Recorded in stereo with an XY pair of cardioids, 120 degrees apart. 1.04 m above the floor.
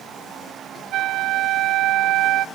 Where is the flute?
70° right, 0.6 m.